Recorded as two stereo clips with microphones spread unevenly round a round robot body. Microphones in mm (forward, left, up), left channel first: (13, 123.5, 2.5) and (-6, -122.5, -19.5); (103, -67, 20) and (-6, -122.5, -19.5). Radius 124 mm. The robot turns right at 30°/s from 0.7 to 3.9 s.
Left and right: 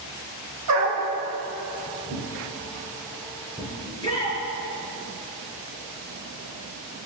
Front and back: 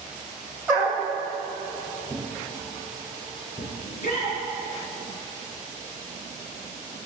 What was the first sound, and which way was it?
A dog barking, 75° right.